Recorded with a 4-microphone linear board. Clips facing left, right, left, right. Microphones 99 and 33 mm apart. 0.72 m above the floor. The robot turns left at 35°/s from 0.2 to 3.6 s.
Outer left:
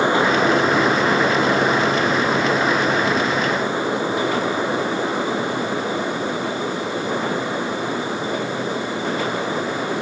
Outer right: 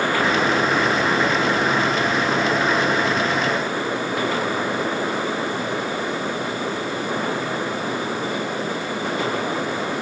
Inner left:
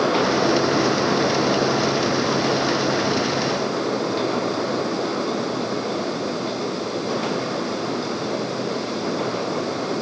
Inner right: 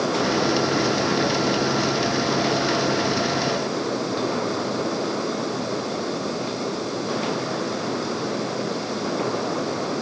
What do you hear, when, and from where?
Only background noise.